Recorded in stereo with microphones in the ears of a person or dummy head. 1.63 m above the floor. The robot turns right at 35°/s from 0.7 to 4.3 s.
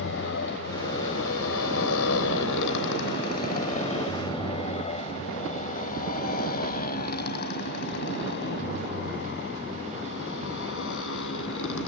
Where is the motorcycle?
65° left (ahead or behind); by 11.9 s 70° left (ahead or behind).